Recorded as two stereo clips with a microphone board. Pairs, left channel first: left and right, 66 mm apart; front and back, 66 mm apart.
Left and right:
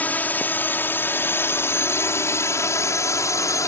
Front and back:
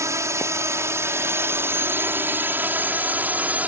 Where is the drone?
150° left; by 3.7 s 115° left.